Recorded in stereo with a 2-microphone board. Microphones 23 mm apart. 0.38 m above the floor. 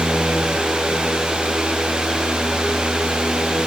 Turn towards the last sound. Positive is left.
No sound to turn to.